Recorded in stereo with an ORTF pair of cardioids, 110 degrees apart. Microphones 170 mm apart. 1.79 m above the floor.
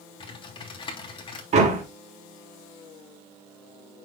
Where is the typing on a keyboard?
30° left, 3 m.